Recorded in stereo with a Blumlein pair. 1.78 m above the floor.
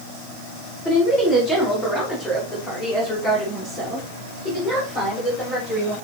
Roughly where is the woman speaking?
Ahead.